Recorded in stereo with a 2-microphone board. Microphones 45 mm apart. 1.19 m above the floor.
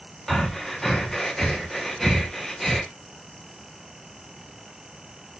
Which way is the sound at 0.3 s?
5° left (ahead or behind).